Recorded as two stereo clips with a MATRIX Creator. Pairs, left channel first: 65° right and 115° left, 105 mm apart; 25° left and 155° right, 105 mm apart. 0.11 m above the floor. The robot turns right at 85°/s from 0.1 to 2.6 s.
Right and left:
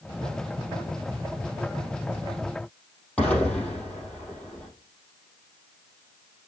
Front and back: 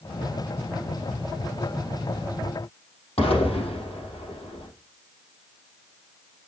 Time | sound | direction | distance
3.2 | an explosion | 10° left | 4 m